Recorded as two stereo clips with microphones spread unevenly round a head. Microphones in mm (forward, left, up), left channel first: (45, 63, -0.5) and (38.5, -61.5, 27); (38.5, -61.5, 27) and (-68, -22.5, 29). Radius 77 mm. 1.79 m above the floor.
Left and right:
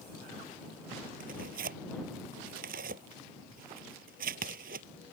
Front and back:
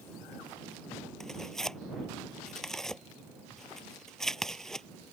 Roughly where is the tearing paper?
Right.